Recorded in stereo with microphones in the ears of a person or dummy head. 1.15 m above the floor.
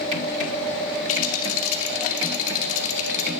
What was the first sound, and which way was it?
A rattle, 85° left.